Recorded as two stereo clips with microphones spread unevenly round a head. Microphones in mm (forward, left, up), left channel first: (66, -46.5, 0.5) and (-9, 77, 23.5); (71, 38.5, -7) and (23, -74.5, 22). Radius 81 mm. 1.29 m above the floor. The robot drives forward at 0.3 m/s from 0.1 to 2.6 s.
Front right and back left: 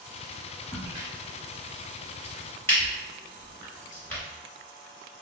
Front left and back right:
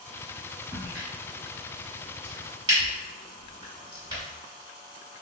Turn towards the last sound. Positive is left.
turn(degrees=-140)